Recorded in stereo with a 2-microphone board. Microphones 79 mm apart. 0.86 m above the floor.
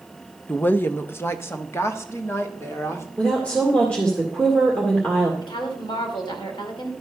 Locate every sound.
0.5 s a woman speaking: 20° left (ahead or behind), 0.6 m; by 3.1 s 35° left (ahead or behind), 2 m
3.2 s a woman speaking: 15° left (ahead or behind), 1.9 m
5.4 s a woman speaking: 75° left (ahead or behind), 2.5 m